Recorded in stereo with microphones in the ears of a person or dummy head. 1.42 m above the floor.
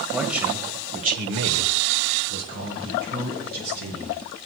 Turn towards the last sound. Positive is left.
turn(degrees=-55)  # may be behind; listen again after turning